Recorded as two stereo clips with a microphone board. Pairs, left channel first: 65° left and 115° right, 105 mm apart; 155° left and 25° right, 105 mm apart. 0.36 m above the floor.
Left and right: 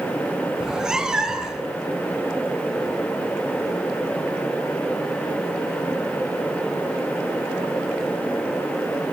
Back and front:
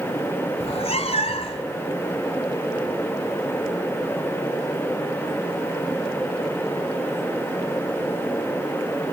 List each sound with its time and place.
0.6 s a cat meowing: 165° left, 1.6 m